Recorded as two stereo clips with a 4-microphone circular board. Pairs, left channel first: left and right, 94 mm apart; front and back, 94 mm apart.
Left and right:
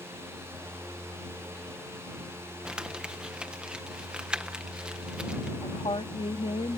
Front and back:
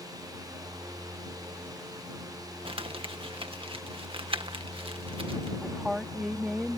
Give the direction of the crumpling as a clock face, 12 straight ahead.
6 o'clock.